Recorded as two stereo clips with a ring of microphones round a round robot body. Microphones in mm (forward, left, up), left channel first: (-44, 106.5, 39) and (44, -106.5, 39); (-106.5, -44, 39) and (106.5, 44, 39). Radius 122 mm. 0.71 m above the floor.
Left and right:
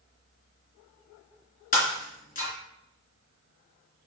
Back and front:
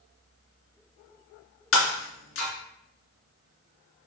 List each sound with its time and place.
1.7 s breaking glass: 170° left, 3 m